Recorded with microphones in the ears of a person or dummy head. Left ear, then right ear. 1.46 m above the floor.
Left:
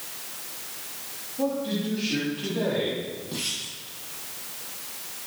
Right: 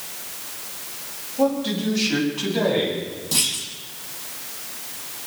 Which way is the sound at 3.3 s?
85° right.